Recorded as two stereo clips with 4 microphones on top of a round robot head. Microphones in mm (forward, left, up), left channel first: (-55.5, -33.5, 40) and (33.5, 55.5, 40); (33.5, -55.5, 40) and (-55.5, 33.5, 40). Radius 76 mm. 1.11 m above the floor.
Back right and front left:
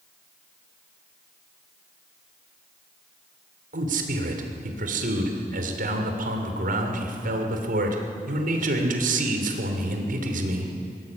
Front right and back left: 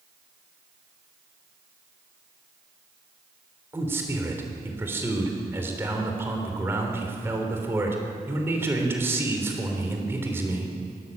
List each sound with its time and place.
3.7 s a man speaking: 60° left, 3 m